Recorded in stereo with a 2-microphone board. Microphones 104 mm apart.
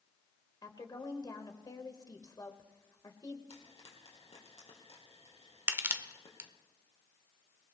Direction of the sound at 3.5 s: 75° left (ahead or behind).